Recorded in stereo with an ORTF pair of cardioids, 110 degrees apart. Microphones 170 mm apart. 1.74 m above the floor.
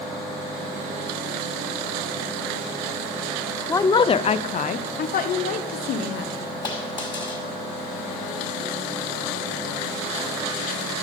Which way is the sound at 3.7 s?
15° left.